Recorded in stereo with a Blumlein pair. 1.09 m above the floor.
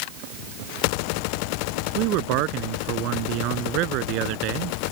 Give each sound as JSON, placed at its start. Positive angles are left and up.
{"t": 1.9, "sound": "a man speaking", "azimuth_deg": -40}